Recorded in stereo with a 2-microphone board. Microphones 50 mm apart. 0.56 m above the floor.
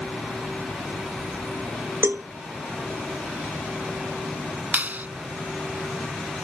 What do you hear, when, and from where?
2.0 s a cowbell: 50° right (ahead or behind)
4.7 s a clap: 35° right (ahead or behind)